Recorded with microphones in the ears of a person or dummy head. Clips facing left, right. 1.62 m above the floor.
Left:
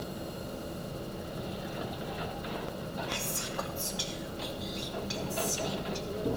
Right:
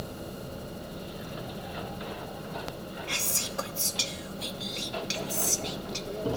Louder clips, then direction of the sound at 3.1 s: Even; 40° right (ahead or behind).